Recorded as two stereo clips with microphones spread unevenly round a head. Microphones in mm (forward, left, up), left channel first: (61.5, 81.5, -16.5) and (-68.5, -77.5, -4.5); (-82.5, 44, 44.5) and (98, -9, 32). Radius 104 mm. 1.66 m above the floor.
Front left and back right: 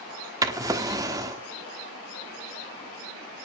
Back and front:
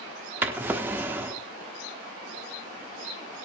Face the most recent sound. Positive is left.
turn(degrees=-95)